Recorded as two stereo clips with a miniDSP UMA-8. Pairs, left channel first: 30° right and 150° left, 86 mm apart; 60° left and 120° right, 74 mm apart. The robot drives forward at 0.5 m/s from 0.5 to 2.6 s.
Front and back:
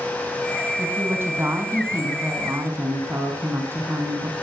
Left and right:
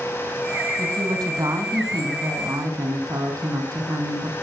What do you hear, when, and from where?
0.8 s a woman speaking: 145° right, 4 m; by 4.3 s 155° right, 4.5 m